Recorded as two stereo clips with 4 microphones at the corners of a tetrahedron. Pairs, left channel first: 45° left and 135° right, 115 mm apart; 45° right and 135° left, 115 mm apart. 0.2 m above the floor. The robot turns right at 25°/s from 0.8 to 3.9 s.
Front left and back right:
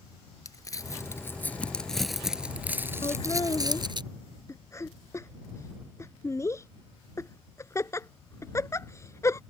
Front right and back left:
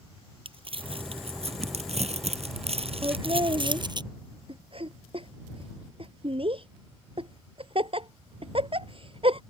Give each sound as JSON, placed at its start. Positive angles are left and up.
{"t": 0.5, "sound": "crumpling", "azimuth_deg": 105}
{"t": 3.0, "sound": "laughter", "azimuth_deg": 85}